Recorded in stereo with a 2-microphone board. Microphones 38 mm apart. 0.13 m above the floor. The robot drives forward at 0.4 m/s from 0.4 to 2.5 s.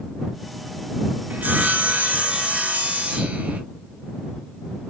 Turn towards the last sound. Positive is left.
turn(degrees=-35)  # may be behind; listen again after turning